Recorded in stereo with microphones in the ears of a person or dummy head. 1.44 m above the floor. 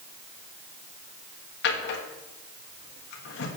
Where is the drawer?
65° left (ahead or behind), 1.3 m.